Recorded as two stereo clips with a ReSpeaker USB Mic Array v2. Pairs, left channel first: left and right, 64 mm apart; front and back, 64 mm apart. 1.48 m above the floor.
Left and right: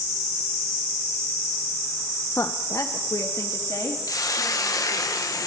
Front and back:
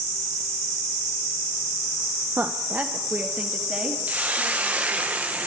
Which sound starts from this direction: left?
A hiss, at 4.1 s.